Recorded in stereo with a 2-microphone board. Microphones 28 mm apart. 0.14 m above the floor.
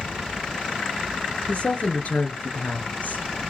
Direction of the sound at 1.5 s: 45° left (ahead or behind).